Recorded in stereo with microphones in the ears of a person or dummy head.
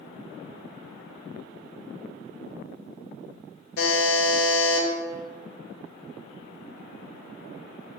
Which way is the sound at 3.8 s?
55° left (ahead or behind).